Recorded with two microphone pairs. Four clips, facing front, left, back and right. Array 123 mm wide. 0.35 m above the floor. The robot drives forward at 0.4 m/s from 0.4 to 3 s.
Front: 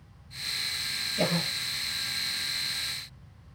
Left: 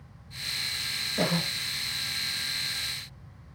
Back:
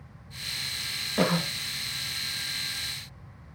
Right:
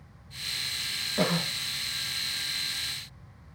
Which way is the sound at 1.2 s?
175° right.